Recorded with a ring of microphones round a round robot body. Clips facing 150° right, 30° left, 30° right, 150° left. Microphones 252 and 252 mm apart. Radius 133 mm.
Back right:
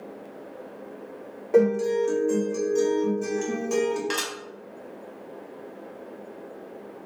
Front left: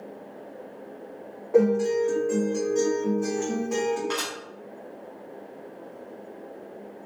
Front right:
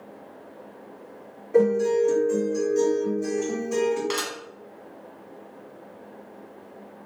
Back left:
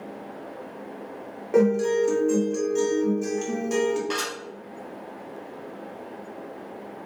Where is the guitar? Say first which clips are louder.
Even, even; 165° left, 1.6 m.